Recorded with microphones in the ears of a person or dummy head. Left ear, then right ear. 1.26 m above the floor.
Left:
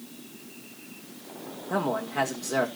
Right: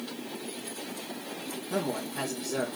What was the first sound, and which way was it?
A man speaking, 40° left (ahead or behind).